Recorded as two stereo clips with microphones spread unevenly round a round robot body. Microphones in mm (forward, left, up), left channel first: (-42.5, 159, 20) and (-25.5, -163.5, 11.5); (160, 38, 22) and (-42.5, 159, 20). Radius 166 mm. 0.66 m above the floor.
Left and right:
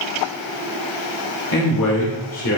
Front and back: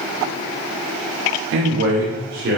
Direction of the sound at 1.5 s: 125° left.